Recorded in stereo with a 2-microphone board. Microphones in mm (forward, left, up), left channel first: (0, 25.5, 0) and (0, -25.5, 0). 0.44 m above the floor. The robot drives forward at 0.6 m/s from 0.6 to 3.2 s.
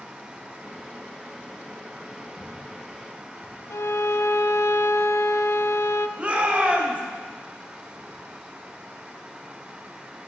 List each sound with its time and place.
2.4 s footsteps: 70° right (ahead or behind), 7 m; by 3.6 s 80° right, 8 m
3.7 s a violin: 70° left (ahead or behind), 0.6 m
6.2 s a shout: 25° right (ahead or behind), 2 m